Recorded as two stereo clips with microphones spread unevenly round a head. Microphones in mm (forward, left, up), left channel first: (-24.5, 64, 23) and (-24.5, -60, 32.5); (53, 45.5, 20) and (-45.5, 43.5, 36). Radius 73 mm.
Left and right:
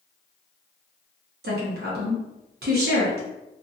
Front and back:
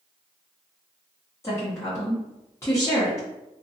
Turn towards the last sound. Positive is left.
turn(degrees=-75)